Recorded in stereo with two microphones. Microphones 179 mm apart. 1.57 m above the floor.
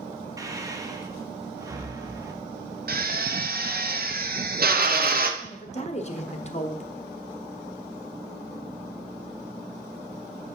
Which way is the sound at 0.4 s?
20° right (ahead or behind).